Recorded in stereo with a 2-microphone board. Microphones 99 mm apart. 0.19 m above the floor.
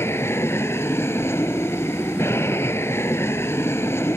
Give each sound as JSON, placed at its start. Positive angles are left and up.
{"t": 0.0, "sound": "an aircraft", "side_deg": 25}